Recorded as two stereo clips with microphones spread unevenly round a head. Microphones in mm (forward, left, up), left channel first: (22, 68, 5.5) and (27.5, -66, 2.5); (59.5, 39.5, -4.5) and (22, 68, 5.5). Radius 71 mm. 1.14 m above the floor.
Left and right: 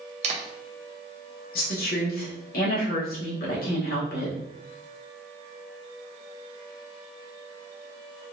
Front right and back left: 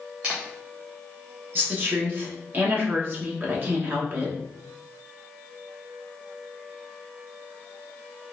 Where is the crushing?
I don't hear crushing.